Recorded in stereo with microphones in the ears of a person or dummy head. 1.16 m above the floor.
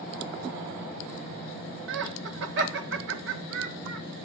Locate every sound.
1.9 s laughter: 65° right (ahead or behind), 1.3 m